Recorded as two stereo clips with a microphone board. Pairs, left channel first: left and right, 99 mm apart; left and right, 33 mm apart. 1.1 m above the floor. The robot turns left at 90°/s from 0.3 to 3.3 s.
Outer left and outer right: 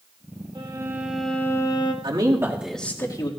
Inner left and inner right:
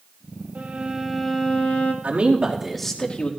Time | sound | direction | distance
0.6 | a violin | 125° right | 1.7 m
2.0 | a man speaking | 120° right | 2.5 m